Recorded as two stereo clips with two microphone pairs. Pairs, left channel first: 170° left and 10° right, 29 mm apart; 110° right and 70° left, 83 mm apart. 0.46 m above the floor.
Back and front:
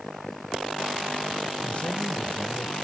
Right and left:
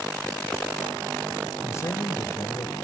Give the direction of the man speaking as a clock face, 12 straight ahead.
5 o'clock.